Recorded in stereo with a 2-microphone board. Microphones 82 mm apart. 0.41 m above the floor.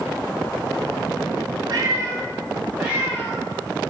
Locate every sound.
1.7 s a cat meowing: 50° right (ahead or behind), 0.7 m; by 3.4 s 5° right (ahead or behind), 2 m